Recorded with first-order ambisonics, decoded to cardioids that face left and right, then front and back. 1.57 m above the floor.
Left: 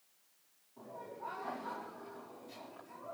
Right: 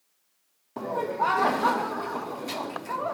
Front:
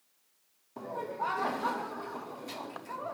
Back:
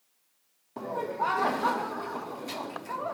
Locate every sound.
0.8 s laughter: 105° right, 0.8 m